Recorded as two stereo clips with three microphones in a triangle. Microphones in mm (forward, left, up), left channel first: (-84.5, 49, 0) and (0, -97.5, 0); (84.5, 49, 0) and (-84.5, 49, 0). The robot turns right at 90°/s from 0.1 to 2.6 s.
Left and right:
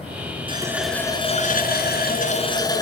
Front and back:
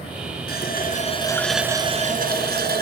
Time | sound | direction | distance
0.5 | a running tap | 5° right | 1.8 m